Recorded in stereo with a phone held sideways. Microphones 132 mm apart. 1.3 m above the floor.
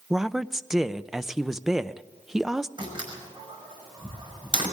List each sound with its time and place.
0.1 s a woman speaking: 5° right (ahead or behind), 0.6 m
2.8 s a door slam: 35° right (ahead or behind), 5.5 m